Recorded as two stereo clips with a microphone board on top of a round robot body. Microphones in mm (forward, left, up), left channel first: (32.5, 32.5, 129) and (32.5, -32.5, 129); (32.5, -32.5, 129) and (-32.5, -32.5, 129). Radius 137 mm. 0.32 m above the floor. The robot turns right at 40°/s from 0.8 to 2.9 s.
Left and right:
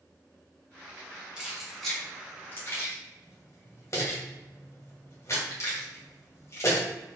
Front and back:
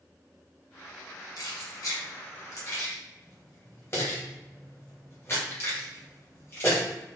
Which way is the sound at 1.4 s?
15° right.